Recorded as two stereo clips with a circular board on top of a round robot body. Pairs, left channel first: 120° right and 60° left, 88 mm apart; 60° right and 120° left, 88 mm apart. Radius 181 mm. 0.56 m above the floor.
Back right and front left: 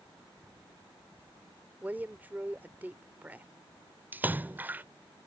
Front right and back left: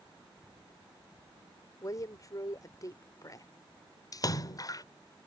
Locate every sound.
1.8 s a woman speaking: 10° right
4.1 s a splash: 10° right